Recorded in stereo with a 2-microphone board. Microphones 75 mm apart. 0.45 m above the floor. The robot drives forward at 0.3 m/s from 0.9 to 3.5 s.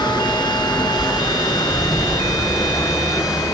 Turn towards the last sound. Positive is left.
turn(degrees=50)  # may be behind; listen again after turning